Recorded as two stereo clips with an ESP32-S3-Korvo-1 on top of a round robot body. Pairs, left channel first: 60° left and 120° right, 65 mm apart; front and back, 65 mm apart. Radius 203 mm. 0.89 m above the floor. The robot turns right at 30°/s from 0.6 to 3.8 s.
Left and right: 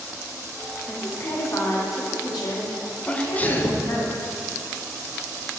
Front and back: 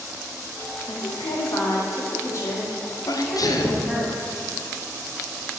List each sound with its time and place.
0.9 s a woman speaking: straight ahead, 2.0 m; by 4.1 s 85° left, 2.0 m
3.1 s a sneeze: 15° right, 0.9 m; by 3.9 s 10° left, 0.9 m